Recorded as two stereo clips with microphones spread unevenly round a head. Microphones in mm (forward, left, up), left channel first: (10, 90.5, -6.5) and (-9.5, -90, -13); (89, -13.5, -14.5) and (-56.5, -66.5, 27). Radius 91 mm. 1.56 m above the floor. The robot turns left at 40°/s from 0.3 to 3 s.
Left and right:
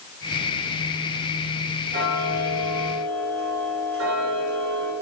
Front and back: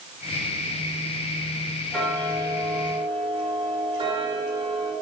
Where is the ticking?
65° right, 5 m; by 4.9 s 110° right, 5 m.